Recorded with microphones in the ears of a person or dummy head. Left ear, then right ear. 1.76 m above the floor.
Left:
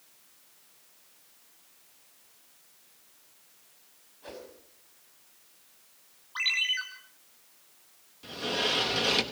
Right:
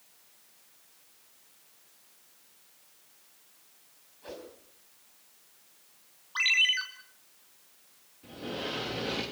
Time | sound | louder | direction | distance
4.2 | a whoosh | even | 10° left (ahead or behind) | 5 m
6.3 | a ringtone | right 3 dB | 10° right (ahead or behind) | 3 m
8.2 | a sliding door | left 8 dB | 50° left (ahead or behind) | 2.5 m